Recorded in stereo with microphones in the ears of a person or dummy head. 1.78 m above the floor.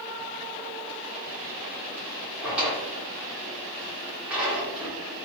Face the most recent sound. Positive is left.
turn(degrees=-10)  # may be behind; listen again after turning